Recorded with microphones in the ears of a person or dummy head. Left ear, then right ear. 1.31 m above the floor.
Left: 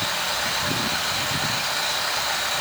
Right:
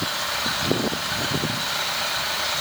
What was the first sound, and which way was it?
Only background noise.